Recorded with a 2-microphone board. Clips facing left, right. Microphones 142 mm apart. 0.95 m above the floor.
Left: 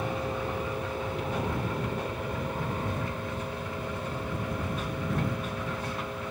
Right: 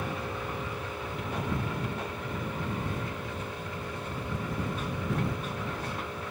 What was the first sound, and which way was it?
An aircraft, 30° left (ahead or behind).